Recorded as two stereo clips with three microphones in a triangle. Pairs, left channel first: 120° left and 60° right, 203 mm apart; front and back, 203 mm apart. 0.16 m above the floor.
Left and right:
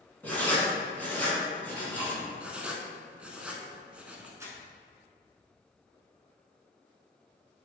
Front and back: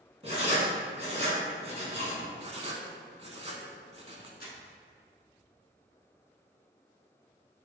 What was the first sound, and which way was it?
Writing, 165° right.